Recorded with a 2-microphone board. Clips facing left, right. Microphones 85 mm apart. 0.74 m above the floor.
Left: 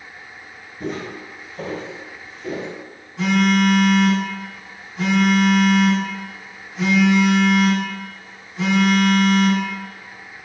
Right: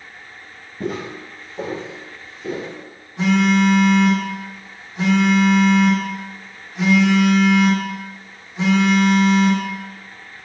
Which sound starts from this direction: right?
Footsteps, at 0.8 s.